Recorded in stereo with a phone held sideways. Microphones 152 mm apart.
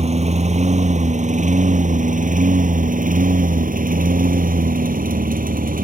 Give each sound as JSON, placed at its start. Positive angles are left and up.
{"t": 0.0, "sound": "a lawn mower", "side_deg": -50}